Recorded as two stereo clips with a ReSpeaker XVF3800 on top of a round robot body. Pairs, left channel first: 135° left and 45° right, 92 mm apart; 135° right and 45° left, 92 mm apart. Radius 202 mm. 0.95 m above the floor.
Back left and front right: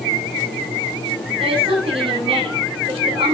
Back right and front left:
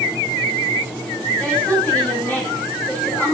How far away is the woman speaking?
About 8.5 m.